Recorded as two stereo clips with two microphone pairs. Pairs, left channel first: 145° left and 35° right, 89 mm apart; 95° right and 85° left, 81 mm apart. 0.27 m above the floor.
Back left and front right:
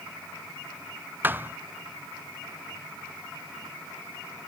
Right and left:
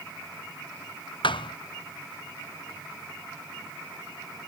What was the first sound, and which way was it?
A thud, 105° right.